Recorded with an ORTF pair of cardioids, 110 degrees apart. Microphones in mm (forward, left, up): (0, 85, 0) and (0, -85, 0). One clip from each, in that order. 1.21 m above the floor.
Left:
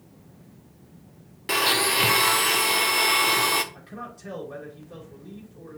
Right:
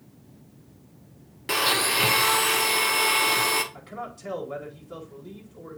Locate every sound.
1.5 s a blender: straight ahead, 0.8 m
3.7 s a man speaking: 20° right, 4 m